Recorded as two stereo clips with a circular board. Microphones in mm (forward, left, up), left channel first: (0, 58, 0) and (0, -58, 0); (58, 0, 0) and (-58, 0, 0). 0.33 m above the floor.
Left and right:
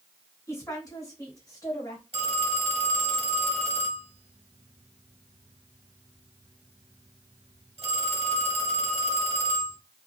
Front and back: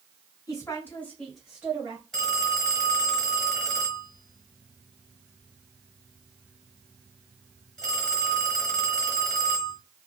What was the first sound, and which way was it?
A woman speaking, 40° left.